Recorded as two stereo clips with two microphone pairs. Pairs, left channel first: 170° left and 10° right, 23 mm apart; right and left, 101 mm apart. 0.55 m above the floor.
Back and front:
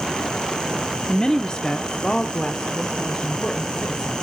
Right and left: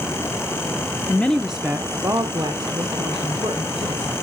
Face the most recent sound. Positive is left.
turn(degrees=120)